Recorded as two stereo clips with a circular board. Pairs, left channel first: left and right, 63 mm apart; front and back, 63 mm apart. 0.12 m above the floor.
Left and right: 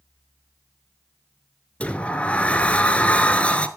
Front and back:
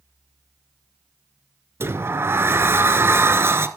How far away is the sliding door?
About 0.7 m.